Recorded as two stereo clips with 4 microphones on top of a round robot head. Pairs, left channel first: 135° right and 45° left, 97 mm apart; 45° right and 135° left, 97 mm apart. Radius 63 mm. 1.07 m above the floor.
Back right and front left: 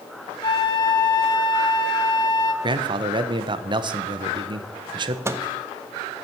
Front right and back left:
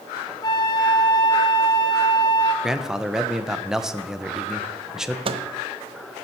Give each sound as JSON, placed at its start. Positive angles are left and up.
{"t": 0.4, "sound": "a flute", "azimuth_deg": -90, "distance_m": 1.0}
{"t": 2.6, "sound": "a man speaking", "azimuth_deg": 55, "distance_m": 0.8}
{"t": 5.2, "sound": "a microwave", "azimuth_deg": 105, "distance_m": 0.7}